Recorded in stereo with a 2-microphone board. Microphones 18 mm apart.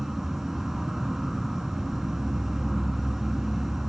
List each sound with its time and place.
0.0 s an insect: 10° right (ahead or behind), 0.8 m